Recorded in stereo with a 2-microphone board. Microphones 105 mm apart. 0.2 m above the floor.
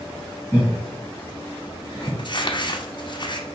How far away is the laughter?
About 2.5 m.